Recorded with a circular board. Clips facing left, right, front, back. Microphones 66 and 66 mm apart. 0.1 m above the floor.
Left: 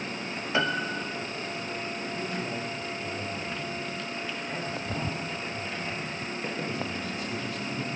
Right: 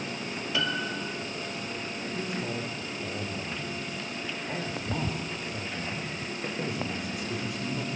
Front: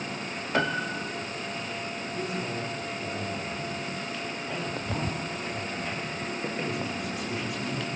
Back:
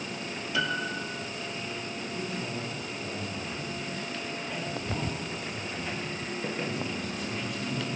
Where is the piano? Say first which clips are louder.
Left 4 dB, front 3 dB; 35° left, 1.0 m.